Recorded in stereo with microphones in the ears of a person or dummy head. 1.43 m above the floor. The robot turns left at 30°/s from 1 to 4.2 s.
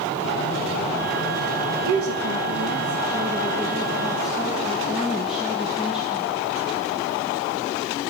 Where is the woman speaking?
110° right, 1.5 m; by 6.3 s straight behind, 1.5 m.